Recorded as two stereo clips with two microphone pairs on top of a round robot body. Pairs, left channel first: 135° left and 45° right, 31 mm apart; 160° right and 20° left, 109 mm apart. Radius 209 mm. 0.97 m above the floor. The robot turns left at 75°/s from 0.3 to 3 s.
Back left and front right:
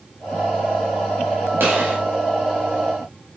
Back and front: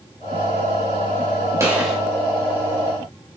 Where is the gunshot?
40° right, 3 m; by 2.0 s 70° right, 3 m.